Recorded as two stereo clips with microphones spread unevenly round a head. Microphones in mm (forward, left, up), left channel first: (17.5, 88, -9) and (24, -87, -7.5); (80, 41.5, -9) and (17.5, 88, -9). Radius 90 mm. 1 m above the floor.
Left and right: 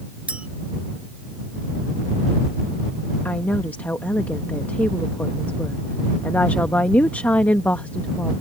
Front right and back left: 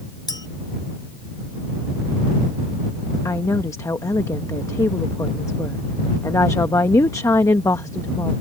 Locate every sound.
0.3 s a clink: 5° right
3.2 s a woman speaking: 10° left